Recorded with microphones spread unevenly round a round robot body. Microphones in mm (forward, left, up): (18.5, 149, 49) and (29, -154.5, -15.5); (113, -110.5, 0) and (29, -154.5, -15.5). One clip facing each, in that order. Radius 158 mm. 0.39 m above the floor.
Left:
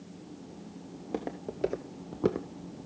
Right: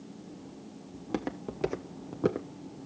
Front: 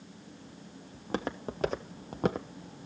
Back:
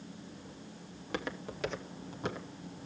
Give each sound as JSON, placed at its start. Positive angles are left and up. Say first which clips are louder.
{"t": 0.9, "sound": "footsteps", "louder": "right 2 dB, front 4 dB", "azimuth_deg": -25, "distance_m": 1.1}